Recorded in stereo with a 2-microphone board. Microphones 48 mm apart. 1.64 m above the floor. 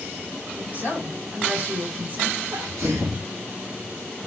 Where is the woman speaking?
35° right (ahead or behind), 7 m.